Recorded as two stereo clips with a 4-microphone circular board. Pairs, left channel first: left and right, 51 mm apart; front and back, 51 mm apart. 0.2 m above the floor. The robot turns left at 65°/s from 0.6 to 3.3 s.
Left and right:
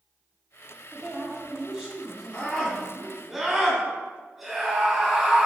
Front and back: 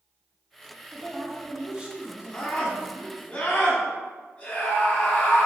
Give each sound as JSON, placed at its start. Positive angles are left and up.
{"t": 0.9, "sound": "a woman speaking", "azimuth_deg": -80, "distance_m": 1.4}
{"t": 2.3, "sound": "a scream", "azimuth_deg": 45, "distance_m": 1.2}